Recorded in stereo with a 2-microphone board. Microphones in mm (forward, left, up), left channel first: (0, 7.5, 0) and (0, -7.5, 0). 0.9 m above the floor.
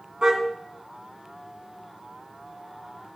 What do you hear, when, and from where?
0.2 s a car horn: 60° right (ahead or behind), 3.5 m